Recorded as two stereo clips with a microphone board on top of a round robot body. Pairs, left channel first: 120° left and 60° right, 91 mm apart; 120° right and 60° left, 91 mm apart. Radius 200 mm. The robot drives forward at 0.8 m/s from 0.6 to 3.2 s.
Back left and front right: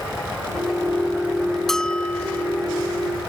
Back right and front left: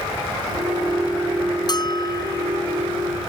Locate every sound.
1.7 s a bell: 155° right; by 2.5 s 165° right